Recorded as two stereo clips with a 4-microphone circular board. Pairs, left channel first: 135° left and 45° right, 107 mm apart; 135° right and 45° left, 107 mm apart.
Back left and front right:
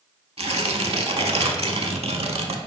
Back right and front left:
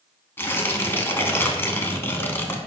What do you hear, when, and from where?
0.4 s tearing paper: 65° right, 0.5 m